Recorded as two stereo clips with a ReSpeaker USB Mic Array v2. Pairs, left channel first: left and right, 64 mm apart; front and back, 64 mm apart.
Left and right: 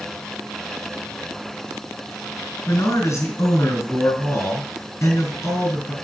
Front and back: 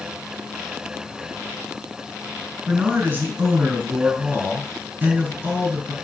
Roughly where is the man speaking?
Behind left.